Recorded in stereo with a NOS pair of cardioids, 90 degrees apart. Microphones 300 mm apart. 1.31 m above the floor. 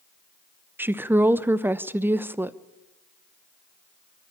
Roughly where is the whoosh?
I don't hear a whoosh.